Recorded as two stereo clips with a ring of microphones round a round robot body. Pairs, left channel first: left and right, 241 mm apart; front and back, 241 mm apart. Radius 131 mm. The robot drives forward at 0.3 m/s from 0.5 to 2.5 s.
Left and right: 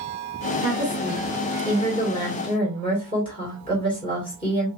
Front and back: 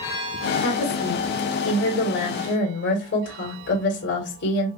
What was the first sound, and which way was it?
A woman speaking, 15° left.